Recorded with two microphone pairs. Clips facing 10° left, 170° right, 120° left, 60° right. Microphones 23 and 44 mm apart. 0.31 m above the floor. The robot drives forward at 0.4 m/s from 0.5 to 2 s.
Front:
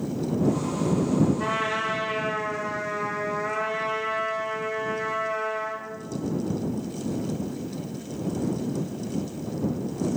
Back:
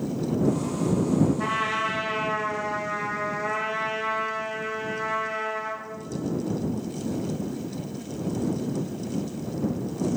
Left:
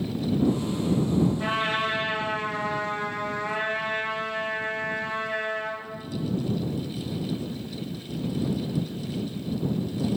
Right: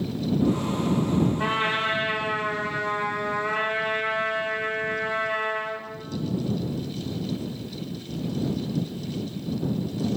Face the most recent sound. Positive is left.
turn(degrees=-120)